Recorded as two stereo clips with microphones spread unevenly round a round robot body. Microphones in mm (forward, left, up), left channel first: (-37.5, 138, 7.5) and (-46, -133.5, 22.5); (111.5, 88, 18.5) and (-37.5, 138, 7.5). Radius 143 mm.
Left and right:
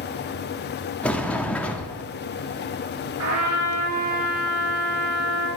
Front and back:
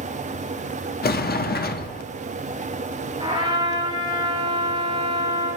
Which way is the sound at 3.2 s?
125° right.